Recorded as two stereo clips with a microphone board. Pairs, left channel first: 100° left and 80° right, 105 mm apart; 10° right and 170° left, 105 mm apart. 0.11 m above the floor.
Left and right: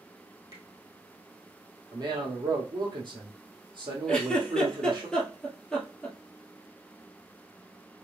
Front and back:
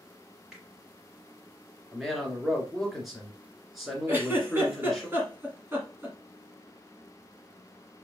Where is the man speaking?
100° right, 1.7 m.